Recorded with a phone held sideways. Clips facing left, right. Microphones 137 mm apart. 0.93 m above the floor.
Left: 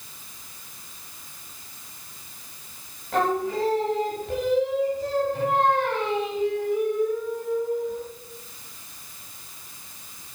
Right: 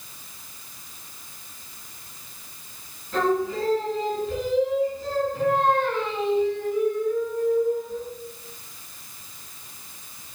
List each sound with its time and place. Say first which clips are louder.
3.1 s singing: right 1 dB; 70° left (ahead or behind), 1.7 m